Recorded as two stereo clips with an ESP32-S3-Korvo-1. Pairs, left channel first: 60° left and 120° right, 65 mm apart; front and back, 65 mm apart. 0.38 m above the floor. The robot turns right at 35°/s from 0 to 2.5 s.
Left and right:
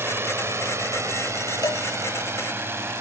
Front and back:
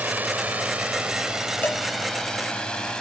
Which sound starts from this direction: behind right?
A drone, at 0.0 s.